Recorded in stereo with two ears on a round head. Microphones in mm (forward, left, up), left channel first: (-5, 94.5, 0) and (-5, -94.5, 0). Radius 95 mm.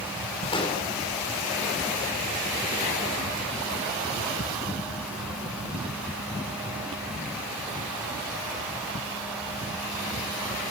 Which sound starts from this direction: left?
An explosion, at 0.5 s.